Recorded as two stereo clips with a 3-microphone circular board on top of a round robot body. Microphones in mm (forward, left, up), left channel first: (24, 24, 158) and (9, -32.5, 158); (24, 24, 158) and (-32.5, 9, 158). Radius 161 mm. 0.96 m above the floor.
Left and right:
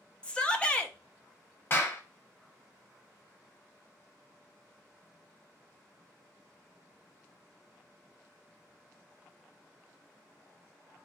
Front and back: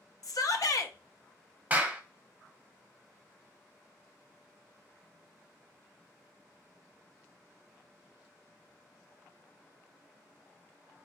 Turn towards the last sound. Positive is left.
turn(degrees=130)